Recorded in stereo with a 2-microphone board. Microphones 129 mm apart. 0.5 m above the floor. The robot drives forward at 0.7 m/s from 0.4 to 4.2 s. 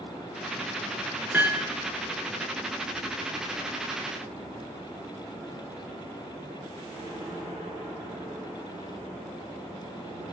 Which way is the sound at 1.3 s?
10° right (ahead or behind).